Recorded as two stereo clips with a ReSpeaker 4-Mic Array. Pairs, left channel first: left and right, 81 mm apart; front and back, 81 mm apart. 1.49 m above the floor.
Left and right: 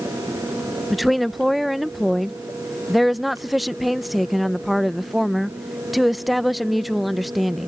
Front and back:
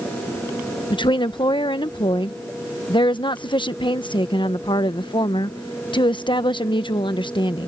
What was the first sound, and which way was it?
A woman speaking, straight ahead.